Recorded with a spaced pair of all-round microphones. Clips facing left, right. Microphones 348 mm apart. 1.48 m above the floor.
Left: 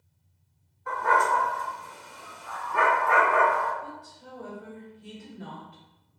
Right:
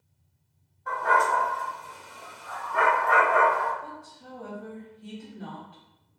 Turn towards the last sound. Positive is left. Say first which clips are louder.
# even
turn(degrees=10)  # may be behind; listen again after turning